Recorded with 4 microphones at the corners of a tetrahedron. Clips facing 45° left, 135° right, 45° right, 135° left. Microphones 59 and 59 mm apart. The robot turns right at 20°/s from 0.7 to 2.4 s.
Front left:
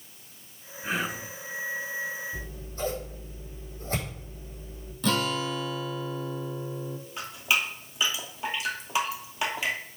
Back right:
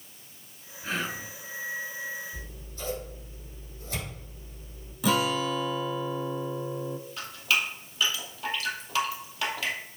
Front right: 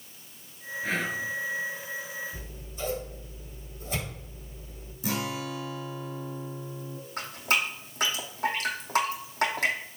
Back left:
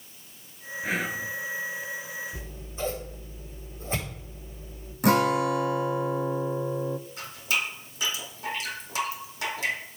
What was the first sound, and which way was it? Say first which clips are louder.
Whispering: front left 2 dB, back left 1 dB; 80° left.